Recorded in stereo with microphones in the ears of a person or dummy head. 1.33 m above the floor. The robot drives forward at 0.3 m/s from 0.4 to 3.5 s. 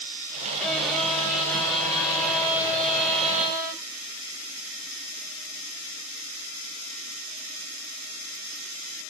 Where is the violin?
5° left (ahead or behind), 0.9 m; by 3.8 s centre (ahead or behind), 1.7 m.